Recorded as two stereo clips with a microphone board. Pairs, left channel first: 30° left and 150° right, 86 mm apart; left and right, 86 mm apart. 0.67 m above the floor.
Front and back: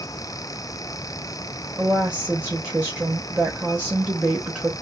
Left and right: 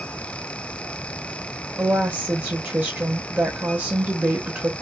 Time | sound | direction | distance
1.8 | a woman speaking | 115° right | 0.9 m